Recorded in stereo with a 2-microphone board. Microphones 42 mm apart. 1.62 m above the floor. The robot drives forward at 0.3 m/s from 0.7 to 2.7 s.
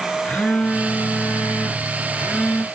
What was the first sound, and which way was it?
A phone buzzing, 50° left (ahead or behind).